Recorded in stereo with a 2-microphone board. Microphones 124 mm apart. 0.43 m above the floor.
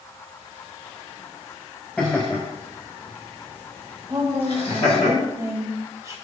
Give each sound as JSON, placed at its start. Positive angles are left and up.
{"t": 2.0, "sound": "laughter", "side_deg": 10, "distance_m": 1.5}
{"t": 4.1, "sound": "a woman speaking", "side_deg": -25, "distance_m": 1.4}